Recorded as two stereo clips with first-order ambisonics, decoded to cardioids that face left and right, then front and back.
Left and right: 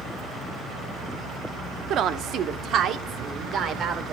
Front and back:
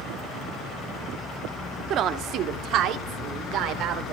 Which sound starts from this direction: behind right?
A woman speaking, at 1.9 s.